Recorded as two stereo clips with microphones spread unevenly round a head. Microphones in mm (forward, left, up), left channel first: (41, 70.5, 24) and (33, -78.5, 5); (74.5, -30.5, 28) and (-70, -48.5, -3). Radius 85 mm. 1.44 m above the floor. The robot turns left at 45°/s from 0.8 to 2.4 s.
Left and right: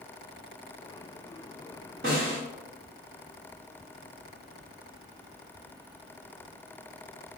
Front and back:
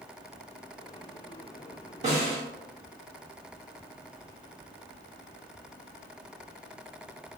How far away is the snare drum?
About 1.2 m.